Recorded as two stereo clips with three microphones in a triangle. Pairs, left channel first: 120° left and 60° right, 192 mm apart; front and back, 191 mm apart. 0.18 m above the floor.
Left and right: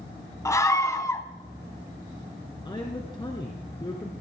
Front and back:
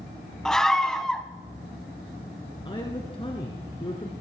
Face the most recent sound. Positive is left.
turn(degrees=60)